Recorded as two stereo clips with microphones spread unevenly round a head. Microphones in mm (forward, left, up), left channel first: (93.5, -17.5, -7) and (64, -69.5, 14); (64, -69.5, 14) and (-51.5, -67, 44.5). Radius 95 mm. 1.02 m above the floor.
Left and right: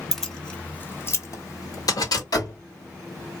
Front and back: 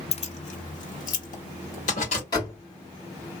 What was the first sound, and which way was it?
Keys jangling, 30° right.